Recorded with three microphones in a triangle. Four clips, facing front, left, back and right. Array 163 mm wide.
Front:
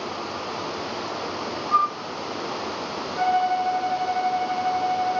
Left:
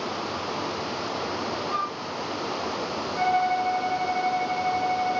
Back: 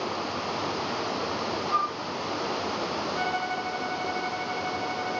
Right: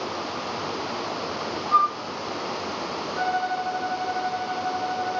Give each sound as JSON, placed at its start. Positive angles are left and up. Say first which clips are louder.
{"t": 1.7, "sound": "a flute", "louder": "right 14 dB, front 8 dB", "azimuth_deg": -40, "distance_m": 0.6}
{"t": 3.2, "sound": "a violin", "louder": "left 3 dB, front 13 dB", "azimuth_deg": -20, "distance_m": 1.2}